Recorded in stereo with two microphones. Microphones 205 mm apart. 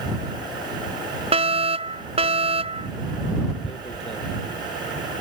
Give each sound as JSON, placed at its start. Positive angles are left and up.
{"t": 1.3, "sound": "a fire alarm", "side_deg": -30}
{"t": 3.6, "sound": "tearing paper", "side_deg": 30}